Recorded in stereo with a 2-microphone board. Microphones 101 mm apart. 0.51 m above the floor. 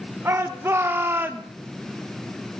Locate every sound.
0.2 s a shout: 25° right (ahead or behind), 1.3 m; by 1.5 s 15° right (ahead or behind), 0.8 m